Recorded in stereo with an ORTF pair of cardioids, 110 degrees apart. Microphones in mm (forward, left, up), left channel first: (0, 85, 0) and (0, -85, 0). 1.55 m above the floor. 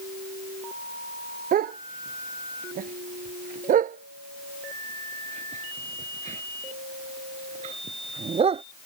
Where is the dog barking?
60° right; by 8.6 s 35° right.